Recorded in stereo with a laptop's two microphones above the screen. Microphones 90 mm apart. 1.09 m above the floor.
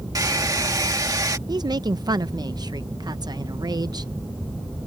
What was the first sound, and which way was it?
A hair dryer, 45° right (ahead or behind).